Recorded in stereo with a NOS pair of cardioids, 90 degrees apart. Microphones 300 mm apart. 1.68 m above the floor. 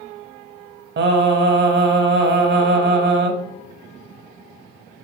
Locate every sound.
1.0 s singing: 40° right, 0.9 m